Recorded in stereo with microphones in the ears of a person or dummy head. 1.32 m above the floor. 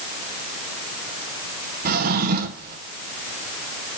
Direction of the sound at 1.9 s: 55° right (ahead or behind).